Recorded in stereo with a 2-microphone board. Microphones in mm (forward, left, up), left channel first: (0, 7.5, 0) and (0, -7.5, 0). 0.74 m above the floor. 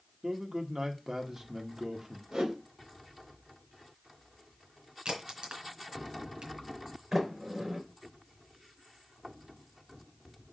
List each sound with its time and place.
0.2 s a man speaking: 35° right (ahead or behind), 1.4 m
2.3 s a whoosh: 85° right, 2.5 m
5.0 s a crack: 85° right, 3 m
7.1 s a sliding door: 40° right (ahead or behind), 3.5 m